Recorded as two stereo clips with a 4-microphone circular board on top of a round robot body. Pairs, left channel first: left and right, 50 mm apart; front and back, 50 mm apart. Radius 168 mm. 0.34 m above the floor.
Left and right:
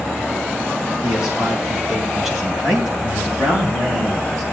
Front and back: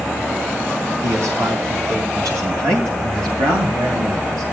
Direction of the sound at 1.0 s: 165° right.